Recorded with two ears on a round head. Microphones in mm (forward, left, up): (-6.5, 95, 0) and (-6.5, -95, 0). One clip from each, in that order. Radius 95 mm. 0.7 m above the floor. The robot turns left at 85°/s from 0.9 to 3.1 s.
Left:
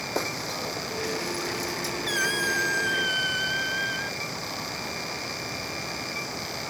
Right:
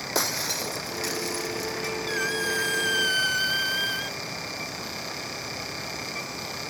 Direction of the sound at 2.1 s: 30° left.